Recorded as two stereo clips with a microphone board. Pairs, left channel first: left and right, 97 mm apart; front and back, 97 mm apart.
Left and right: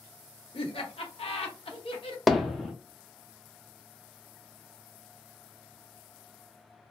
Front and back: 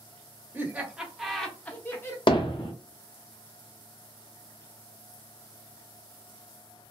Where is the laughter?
110° left, 1.1 m; by 2.2 s 60° left, 1.0 m.